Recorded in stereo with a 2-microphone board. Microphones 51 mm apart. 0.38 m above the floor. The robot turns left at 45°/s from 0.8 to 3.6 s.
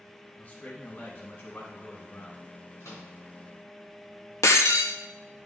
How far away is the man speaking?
About 1.9 m.